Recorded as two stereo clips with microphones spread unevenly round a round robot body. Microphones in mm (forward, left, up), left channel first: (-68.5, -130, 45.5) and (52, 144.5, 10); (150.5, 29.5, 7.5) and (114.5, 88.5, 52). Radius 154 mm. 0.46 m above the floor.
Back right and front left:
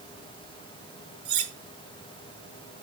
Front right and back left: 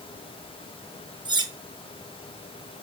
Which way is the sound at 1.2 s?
95° left.